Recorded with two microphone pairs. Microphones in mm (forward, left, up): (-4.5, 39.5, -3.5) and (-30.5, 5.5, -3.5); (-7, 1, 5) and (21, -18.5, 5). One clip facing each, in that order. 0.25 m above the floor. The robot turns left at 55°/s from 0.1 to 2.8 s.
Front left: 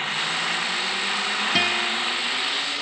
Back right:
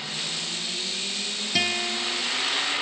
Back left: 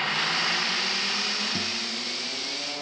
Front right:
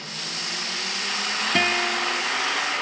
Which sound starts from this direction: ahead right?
A guitar, at 1.6 s.